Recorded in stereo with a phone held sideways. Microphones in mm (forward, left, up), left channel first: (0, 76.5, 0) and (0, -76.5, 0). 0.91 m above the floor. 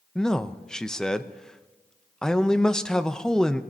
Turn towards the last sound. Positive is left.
turn(degrees=5)  # may be behind; listen again after turning